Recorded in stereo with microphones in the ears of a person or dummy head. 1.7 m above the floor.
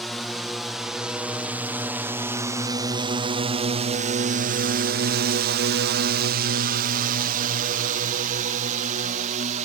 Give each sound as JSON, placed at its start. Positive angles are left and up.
{"t": 0.0, "sound": "a drone", "side_deg": 0}